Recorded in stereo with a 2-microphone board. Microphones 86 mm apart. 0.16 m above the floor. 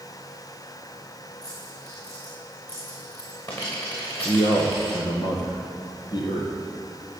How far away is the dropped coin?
About 6 m.